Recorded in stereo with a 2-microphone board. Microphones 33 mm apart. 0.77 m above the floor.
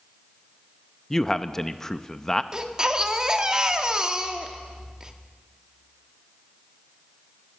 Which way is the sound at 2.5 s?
20° right (ahead or behind).